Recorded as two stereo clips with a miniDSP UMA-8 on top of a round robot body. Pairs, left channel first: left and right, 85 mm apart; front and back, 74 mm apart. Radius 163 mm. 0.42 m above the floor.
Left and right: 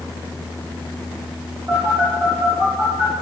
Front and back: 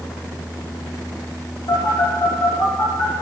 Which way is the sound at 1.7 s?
25° right.